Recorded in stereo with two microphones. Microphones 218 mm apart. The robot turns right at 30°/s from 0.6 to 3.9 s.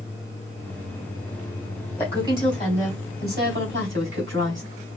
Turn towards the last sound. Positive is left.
turn(degrees=-115)